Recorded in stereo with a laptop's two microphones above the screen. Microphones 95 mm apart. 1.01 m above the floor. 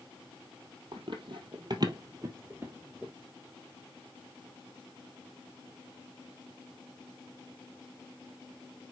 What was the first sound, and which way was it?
Running footsteps, 60° right (ahead or behind).